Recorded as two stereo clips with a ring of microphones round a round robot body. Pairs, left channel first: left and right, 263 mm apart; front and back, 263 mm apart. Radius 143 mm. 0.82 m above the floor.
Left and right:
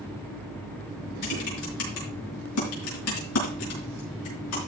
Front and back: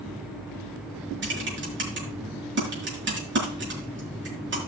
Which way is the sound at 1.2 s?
135° left.